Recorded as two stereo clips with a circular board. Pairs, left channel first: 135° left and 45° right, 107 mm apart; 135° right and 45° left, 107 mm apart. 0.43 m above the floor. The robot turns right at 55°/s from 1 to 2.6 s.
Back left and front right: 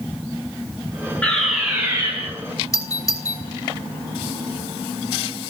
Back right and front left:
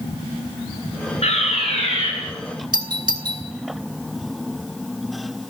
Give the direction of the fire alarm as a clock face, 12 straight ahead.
5 o'clock.